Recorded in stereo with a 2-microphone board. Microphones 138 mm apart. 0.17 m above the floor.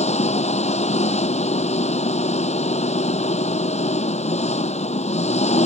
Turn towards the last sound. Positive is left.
turn(degrees=55)  # may be behind; listen again after turning